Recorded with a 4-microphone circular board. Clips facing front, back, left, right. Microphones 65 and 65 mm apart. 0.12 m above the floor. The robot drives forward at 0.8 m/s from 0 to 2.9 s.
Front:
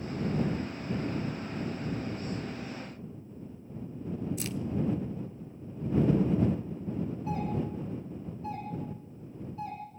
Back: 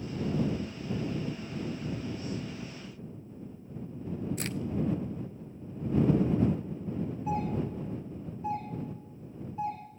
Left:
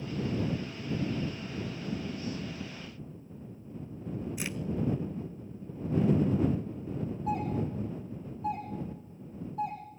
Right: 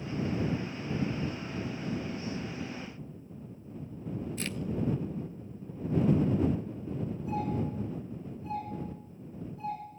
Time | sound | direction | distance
4.4 | a crack | 160° left | 0.6 m
7.3 | a doorbell | 110° left | 9 m